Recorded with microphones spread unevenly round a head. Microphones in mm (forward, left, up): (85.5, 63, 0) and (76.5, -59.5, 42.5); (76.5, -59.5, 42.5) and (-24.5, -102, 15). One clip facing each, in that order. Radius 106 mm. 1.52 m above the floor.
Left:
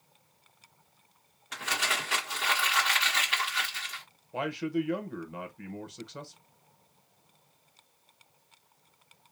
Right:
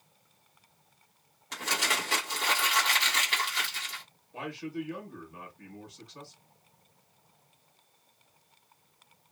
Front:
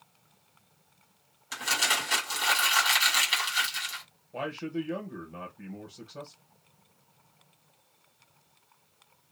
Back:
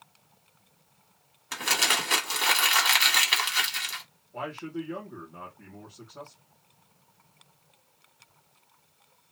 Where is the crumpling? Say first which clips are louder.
Right 1 dB, back 2 dB; 130° right, 1.5 m.